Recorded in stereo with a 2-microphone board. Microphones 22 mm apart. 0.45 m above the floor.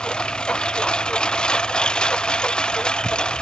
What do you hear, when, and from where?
0.0 s a lawn mower: 40° left (ahead or behind)